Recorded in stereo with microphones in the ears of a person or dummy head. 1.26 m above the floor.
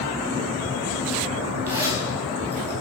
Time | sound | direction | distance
1.7 | a zipper | 15° right (ahead or behind) | 1.2 m